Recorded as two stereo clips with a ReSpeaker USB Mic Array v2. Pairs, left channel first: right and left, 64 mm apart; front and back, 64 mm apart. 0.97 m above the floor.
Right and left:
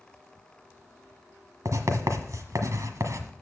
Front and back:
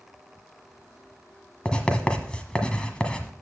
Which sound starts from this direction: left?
Writing, at 1.6 s.